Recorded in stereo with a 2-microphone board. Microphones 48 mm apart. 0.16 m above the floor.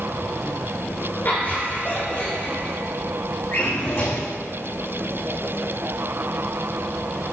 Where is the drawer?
50° left (ahead or behind), 5 m.